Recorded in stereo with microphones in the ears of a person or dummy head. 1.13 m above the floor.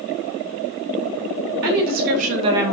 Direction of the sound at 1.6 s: 50° right (ahead or behind).